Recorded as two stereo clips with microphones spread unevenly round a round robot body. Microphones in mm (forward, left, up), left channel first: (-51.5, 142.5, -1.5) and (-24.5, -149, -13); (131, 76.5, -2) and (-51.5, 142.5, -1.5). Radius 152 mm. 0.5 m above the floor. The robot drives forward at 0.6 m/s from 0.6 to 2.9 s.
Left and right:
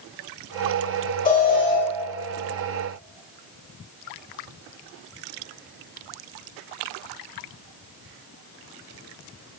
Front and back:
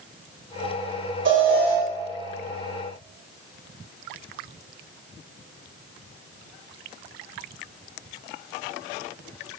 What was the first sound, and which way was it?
An alarm, 155° left.